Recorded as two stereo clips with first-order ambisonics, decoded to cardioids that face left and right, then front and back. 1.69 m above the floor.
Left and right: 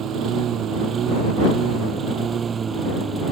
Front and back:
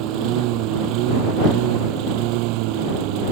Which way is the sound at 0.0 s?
145° right.